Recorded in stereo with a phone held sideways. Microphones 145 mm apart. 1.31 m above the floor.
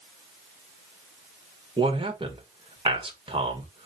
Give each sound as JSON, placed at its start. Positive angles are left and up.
{"t": 1.8, "sound": "a man speaking", "side_deg": -35, "distance_m": 1.5}